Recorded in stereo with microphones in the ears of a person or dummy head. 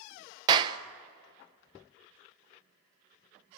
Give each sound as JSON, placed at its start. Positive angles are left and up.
{"t": 0.5, "sound": "a clap", "side_deg": -30, "distance_m": 0.7}